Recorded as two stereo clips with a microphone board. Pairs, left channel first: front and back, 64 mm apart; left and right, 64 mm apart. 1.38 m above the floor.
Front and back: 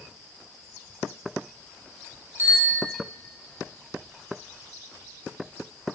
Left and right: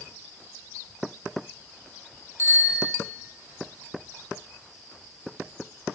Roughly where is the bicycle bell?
Behind left.